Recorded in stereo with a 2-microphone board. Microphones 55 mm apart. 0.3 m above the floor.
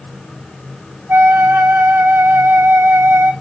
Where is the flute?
40° right (ahead or behind), 0.6 m.